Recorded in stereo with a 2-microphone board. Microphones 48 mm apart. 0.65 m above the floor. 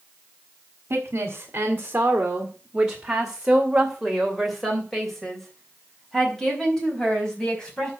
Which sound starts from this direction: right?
A woman speaking, at 0.9 s.